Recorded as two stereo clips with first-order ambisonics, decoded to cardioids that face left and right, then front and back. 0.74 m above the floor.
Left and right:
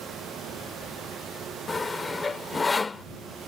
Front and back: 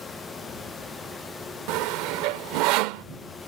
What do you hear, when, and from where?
1.7 s sawing: 165° left